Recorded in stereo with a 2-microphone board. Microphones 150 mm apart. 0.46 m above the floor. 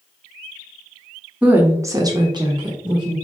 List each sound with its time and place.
1.4 s a woman speaking: 10° right (ahead or behind), 0.9 m; by 3.1 s 30° right (ahead or behind), 1.3 m